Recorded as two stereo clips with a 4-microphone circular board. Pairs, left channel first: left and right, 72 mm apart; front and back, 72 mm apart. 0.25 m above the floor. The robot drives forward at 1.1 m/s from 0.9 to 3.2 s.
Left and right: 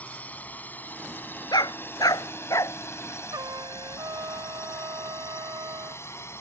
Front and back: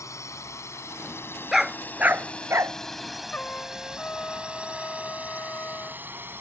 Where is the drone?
25° left; by 6.4 s 130° left.